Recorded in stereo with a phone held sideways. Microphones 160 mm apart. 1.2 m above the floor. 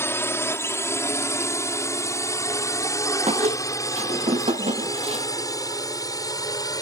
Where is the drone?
15° left (ahead or behind); by 6.8 s 20° left (ahead or behind).